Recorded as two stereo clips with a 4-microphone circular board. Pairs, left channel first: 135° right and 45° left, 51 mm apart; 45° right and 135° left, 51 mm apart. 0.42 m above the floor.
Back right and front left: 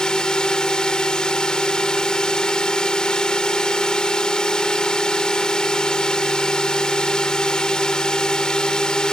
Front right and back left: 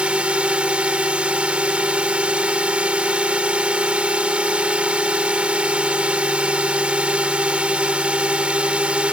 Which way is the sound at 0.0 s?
165° left.